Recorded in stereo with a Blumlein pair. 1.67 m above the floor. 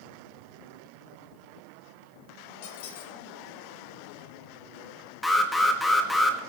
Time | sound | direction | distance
2.6 | a squeak | 50° left | 1.8 m
5.2 | an alarm | 5° left | 1.6 m